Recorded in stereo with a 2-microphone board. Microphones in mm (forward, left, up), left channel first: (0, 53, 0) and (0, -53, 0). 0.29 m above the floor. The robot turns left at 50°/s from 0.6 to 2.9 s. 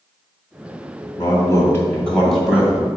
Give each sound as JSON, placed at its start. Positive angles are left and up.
{"t": 1.2, "sound": "a man speaking", "azimuth_deg": 60, "distance_m": 1.9}